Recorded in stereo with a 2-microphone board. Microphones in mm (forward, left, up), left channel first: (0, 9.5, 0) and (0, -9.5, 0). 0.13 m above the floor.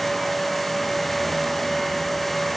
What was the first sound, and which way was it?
Only background noise.